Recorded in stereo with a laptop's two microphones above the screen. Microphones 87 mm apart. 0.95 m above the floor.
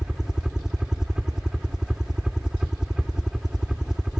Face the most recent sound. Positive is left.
turn(degrees=-5)  # may be behind; listen again after turning